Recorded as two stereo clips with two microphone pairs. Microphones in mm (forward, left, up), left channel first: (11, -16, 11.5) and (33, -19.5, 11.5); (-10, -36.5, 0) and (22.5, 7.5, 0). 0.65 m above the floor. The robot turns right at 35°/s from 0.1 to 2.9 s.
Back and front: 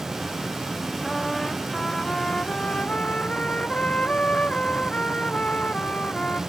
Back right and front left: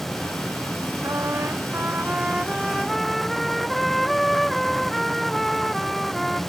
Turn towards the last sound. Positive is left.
turn(degrees=145)